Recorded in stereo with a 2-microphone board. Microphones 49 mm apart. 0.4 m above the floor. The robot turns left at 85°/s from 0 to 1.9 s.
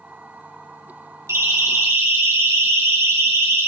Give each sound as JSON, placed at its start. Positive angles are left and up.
{"t": 1.3, "sound": "a siren", "side_deg": -70, "distance_m": 4.5}